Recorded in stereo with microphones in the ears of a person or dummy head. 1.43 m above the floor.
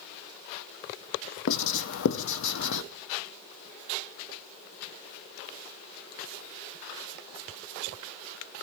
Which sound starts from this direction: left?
Writing, at 1.5 s.